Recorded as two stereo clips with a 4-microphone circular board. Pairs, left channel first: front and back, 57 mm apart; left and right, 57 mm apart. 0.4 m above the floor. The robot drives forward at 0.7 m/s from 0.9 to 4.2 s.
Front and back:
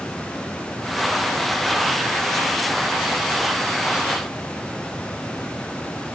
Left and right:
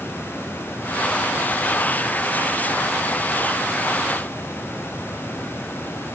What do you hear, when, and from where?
Only background noise.